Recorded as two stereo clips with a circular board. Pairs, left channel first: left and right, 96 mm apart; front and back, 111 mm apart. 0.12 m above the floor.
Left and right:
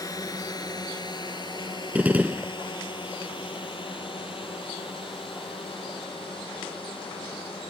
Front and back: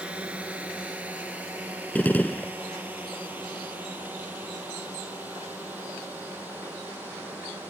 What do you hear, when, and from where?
0.0 s a drone: 105° left; by 7.7 s 110° left
1.9 s a gunshot: 45° right